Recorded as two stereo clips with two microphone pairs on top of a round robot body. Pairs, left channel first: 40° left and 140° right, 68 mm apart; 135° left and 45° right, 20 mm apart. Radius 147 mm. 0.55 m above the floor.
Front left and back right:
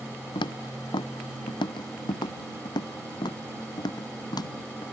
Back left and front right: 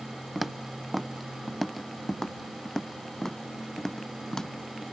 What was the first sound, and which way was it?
Footsteps, 35° left.